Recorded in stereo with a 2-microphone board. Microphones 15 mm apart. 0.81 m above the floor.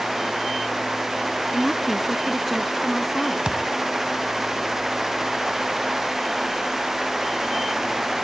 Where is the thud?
70° right (ahead or behind).